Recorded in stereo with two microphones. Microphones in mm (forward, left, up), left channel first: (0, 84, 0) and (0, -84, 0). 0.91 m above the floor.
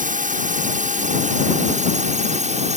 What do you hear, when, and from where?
0.0 s a drone: 50° right (ahead or behind); by 2.8 s 40° right (ahead or behind)